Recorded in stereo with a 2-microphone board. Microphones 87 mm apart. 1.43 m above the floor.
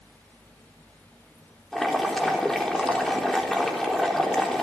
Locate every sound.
1.7 s boiling: centre (ahead or behind), 3.5 m